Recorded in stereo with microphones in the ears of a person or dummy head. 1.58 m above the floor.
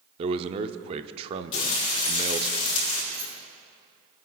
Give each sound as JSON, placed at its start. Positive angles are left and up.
{"t": 0.2, "sound": "a man speaking", "side_deg": -35, "distance_m": 0.6}
{"t": 1.5, "sound": "frying", "side_deg": 35, "distance_m": 3.0}
{"t": 3.1, "sound": "keys jangling", "side_deg": -55, "distance_m": 4.0}